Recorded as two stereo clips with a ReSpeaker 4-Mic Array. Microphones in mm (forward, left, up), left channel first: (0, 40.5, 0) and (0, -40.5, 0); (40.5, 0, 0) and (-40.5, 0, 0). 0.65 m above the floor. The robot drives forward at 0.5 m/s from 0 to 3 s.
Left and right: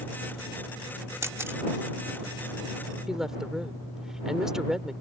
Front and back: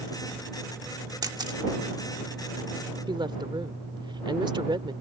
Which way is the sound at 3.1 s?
175° right.